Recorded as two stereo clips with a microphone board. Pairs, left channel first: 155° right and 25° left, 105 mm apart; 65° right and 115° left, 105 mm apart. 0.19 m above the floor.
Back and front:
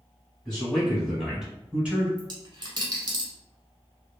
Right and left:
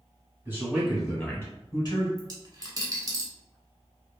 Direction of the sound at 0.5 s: 125° left.